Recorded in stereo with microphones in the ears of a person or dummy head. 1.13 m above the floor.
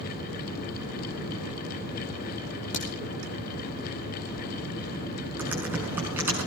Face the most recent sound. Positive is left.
turn(degrees=-10)  # may be behind; listen again after turning